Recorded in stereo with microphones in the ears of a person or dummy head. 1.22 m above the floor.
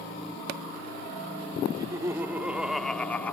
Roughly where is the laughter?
Right.